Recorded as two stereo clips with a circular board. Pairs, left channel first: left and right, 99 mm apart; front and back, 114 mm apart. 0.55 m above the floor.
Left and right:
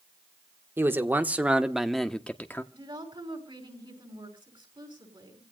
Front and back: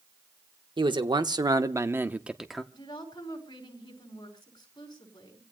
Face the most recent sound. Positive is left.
turn(degrees=-55)